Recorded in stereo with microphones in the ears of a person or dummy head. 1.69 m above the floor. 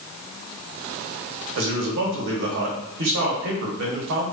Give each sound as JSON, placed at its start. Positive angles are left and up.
{"t": 1.6, "sound": "a man speaking", "side_deg": -65, "distance_m": 1.3}